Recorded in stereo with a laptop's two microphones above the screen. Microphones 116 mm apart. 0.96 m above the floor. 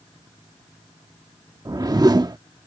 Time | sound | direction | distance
1.6 | a whoosh | 35° right (ahead or behind) | ?